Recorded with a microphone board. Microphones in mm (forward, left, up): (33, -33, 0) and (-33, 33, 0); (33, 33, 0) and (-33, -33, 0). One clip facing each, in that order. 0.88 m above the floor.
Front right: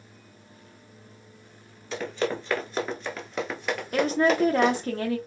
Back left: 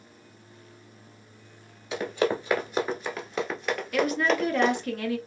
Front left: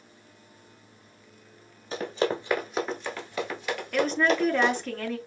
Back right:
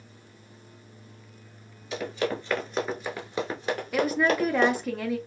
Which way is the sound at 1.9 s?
65° left.